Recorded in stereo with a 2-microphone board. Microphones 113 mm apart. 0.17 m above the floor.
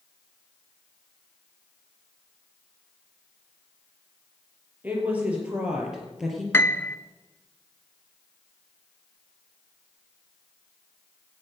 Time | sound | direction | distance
4.8 | a woman speaking | 15° right (ahead or behind) | 4 m
6.5 | a piano | 20° left (ahead or behind) | 0.5 m